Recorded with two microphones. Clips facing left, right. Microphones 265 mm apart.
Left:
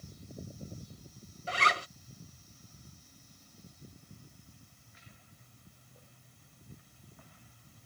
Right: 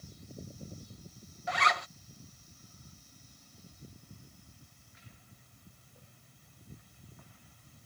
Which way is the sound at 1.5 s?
35° left (ahead or behind).